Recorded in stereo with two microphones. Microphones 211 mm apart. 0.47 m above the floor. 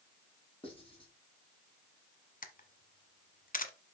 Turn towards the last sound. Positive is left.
turn(degrees=40)  # may be behind; listen again after turning